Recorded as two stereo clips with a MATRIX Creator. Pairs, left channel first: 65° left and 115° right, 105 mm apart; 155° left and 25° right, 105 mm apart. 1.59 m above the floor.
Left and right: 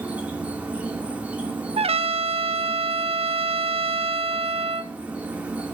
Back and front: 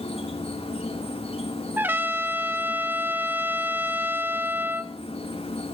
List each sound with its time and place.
0.0 s an insect: 170° left, 3 m
1.8 s a trumpet: 95° right, 1.3 m